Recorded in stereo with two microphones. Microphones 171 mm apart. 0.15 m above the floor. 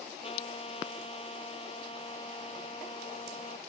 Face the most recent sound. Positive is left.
turn(degrees=35)  # may be behind; listen again after turning